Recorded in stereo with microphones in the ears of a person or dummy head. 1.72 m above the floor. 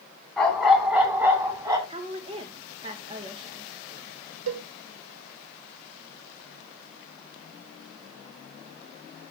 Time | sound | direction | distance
0.4 | a dog barking | centre (ahead or behind) | 3.5 m
1.9 | a woman speaking | 30° right (ahead or behind) | 2.5 m
4.5 | a cowbell | 70° right (ahead or behind) | 0.9 m